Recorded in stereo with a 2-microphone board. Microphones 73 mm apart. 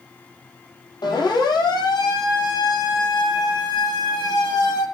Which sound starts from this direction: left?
A siren, at 1.0 s.